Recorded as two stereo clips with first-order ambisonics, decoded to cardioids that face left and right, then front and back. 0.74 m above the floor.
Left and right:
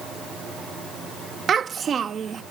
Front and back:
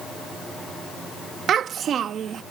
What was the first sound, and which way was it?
A child speaking, 140° right.